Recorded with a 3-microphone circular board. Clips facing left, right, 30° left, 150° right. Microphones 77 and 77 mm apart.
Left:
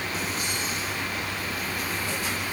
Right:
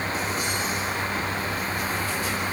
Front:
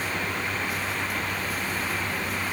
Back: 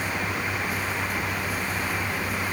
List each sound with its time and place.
Only background noise.